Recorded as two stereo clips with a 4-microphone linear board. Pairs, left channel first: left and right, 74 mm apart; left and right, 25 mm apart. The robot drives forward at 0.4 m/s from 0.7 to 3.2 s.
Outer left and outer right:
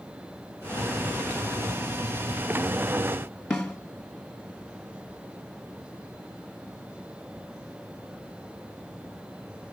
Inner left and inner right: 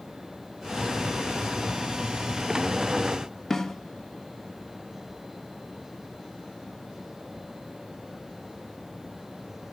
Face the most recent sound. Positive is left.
turn(degrees=15)  # may be behind; listen again after turning